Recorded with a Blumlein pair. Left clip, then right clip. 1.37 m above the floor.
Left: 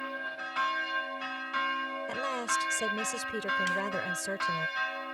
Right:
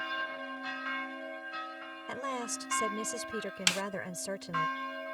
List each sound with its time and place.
2.1 s a woman speaking: 5° left
3.7 s a snare drum: 35° right